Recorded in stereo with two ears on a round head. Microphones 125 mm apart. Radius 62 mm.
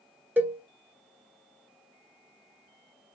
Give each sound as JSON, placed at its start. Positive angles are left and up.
{"t": 0.4, "sound": "a cowbell", "side_deg": -15, "distance_m": 0.9}